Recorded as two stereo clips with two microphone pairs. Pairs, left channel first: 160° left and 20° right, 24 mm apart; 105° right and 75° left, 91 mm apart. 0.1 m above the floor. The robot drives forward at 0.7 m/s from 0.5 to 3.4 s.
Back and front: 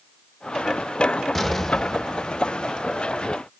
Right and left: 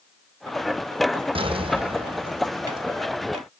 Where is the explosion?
80° left, 2 m; by 2.9 s 110° left, 2 m.